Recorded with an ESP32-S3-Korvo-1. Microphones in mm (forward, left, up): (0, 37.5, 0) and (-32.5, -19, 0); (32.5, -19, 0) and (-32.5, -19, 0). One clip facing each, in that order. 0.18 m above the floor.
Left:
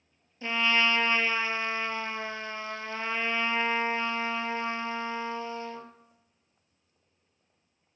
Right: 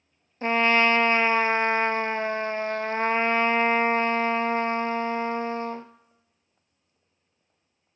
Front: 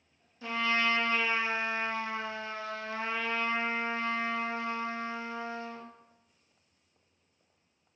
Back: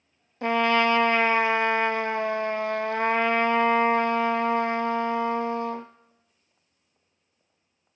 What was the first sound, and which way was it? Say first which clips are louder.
A trumpet: right 6 dB, back 8 dB; 165° right.